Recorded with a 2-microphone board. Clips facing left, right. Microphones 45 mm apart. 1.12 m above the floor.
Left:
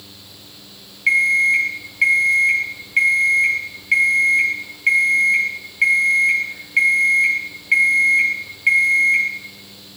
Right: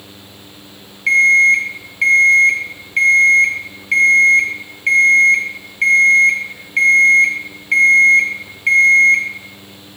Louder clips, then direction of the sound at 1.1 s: Right 5 dB; 5° left (ahead or behind).